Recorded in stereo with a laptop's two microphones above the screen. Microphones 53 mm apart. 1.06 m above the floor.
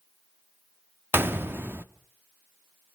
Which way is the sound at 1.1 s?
45° right (ahead or behind).